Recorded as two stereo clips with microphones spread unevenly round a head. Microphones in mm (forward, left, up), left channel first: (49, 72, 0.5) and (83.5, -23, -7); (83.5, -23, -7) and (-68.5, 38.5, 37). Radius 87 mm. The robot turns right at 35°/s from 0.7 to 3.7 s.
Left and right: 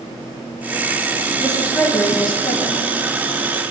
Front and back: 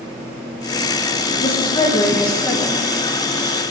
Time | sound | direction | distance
1.4 | a woman speaking | 25° left | 1.6 m